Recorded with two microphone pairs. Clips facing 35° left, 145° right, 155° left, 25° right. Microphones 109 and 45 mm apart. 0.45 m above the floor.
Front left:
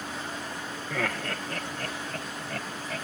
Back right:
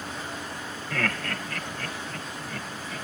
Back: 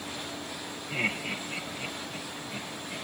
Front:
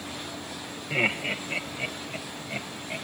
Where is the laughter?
35° right, 1.6 m; by 3.0 s 15° left, 3.5 m.